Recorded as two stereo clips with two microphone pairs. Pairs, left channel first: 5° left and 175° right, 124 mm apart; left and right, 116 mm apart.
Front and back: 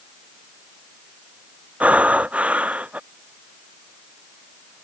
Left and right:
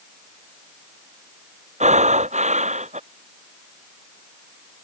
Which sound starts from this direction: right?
Breathing, at 1.8 s.